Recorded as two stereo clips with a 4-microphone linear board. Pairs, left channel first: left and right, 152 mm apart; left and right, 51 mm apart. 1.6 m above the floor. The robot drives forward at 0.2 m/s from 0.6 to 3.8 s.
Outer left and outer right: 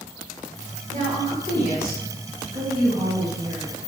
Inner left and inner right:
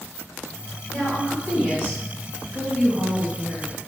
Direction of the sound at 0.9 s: 40° right (ahead or behind).